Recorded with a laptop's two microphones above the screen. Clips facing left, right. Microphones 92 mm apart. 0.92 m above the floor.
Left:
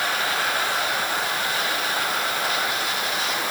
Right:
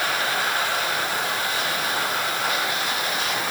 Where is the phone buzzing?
No phone buzzing in this recording.